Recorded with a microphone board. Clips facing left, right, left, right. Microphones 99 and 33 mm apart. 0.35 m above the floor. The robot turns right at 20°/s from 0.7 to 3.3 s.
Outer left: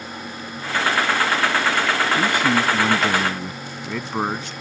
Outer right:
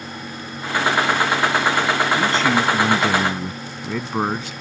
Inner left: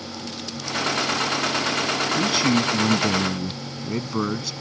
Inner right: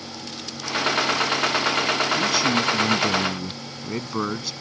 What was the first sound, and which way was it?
A man speaking, 15° left (ahead or behind).